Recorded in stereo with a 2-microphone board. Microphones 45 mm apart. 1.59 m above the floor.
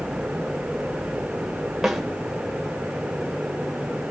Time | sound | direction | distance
1.8 | a snare drum | 5° right (ahead or behind) | 1.8 m